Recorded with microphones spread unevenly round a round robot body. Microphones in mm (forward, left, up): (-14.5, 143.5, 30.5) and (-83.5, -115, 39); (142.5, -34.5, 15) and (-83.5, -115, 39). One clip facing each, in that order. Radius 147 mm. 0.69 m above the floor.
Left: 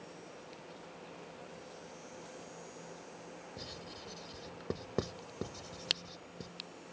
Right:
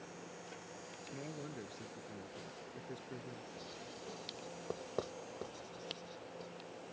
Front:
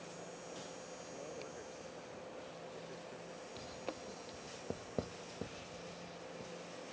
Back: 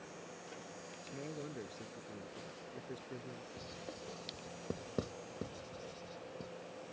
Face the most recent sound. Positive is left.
turn(degrees=125)